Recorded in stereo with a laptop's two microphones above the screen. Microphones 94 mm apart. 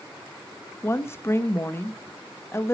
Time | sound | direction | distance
0.8 | a woman speaking | 25° left (ahead or behind) | 1.1 m